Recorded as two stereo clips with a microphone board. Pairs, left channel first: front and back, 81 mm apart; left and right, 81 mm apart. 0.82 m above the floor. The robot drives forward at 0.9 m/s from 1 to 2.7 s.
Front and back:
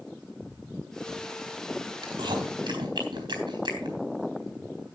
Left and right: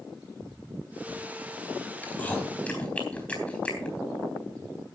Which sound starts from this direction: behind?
Chewing, at 2.0 s.